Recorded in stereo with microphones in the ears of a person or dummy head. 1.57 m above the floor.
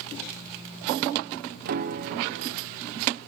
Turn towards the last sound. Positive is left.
turn(degrees=-45)  # may be behind; listen again after turning